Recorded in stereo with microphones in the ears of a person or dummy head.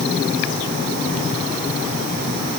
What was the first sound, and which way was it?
Only background noise.